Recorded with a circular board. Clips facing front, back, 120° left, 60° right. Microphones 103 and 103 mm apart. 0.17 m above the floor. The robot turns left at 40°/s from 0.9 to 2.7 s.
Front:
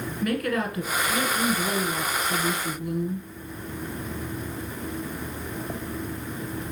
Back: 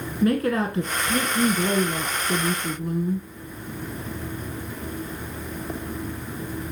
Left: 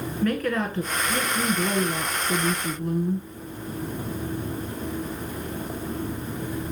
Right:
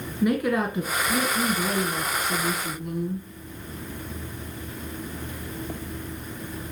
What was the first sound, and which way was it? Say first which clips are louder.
A woman speaking: back 5 dB, right 2 dB; 135° right.